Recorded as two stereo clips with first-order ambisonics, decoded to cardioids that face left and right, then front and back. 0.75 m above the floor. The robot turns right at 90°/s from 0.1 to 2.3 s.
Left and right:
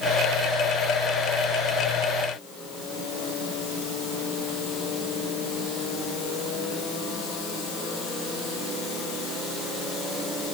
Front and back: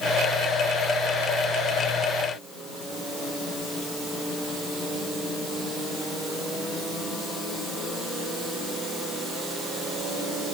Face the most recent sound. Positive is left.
No sound to turn to.